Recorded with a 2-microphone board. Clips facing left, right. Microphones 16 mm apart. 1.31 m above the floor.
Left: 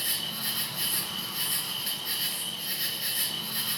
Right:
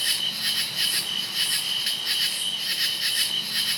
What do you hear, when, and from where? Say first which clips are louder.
0.0 s an insect: right 7 dB; 40° right (ahead or behind), 0.8 m